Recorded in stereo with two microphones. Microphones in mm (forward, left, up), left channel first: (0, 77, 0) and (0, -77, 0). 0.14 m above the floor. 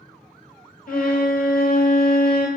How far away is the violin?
About 0.7 m.